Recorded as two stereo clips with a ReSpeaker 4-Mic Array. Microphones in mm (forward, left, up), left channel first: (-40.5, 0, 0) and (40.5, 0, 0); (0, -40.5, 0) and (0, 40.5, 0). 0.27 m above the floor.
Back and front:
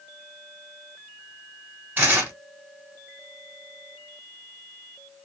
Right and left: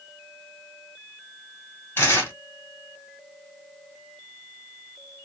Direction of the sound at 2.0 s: 50° right.